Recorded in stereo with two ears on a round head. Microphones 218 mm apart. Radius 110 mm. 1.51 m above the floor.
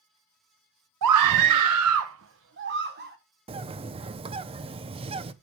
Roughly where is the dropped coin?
No dropped coin in this recording.